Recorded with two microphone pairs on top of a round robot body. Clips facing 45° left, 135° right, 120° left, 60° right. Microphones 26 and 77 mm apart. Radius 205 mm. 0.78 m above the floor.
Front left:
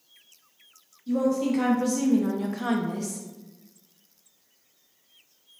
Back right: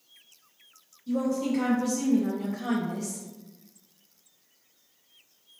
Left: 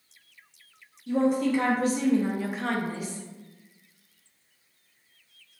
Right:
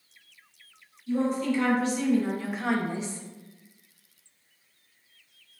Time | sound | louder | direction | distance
1.1 | a woman speaking | front left 3 dB, left 3 dB | 95° left | 1.8 m